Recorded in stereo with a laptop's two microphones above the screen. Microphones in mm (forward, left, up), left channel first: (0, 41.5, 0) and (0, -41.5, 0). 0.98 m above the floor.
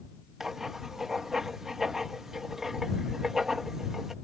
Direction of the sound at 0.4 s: 5° right (ahead or behind).